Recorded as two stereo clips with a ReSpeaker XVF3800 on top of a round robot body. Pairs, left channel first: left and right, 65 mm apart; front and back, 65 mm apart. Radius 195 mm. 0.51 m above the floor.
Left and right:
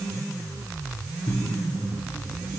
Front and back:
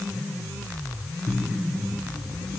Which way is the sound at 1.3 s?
85° left.